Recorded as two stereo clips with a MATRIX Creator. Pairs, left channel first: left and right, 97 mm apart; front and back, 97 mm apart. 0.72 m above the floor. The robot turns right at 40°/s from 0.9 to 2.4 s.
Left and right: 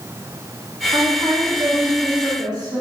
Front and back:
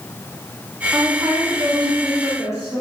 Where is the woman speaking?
115° right, 4 m; by 2.8 s 55° right, 4 m.